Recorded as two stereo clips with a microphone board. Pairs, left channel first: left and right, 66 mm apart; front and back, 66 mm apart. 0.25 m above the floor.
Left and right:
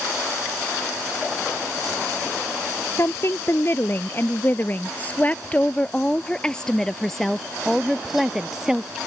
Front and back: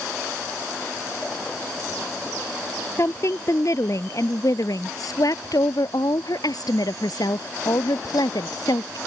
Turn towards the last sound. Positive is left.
turn(degrees=-10)